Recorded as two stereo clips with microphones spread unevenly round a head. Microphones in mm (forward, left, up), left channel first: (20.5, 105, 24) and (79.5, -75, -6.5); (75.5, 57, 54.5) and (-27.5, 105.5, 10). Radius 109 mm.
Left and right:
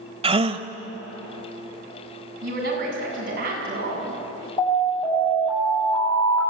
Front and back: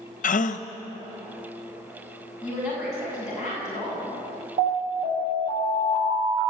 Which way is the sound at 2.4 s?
120° right.